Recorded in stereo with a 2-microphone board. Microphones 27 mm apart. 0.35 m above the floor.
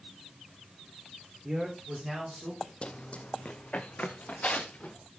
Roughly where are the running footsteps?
Left.